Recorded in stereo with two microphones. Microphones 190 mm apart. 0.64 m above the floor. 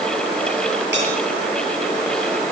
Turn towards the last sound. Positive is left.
turn(degrees=-80)